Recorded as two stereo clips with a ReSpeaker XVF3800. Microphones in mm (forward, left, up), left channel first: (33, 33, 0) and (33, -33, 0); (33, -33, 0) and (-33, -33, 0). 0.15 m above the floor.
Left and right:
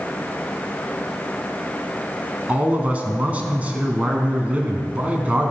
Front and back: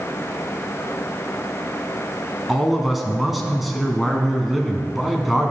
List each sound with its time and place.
2.5 s a man speaking: 95° right, 1.1 m